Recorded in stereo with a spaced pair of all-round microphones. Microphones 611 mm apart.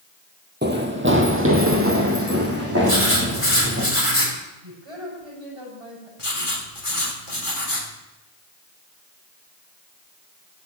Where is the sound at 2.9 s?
20° left (ahead or behind), 6.5 m.